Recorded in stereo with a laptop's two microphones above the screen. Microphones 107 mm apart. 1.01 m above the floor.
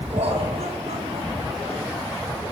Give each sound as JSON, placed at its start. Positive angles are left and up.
{"t": 0.1, "sound": "laughter", "side_deg": -80, "distance_m": 4.5}